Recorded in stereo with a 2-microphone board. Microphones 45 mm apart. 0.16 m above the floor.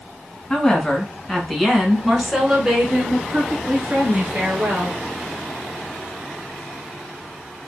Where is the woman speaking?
20° left (ahead or behind), 1.8 m; by 5.0 s 35° right (ahead or behind), 3 m.